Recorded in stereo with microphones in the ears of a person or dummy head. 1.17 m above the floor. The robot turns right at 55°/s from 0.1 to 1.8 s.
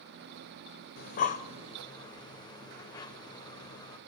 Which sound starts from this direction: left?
Breathing, at 1.0 s.